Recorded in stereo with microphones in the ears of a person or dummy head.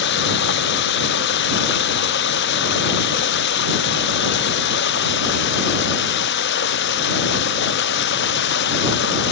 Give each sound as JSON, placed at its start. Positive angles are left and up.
{"t": 0.0, "sound": "running water", "side_deg": 60}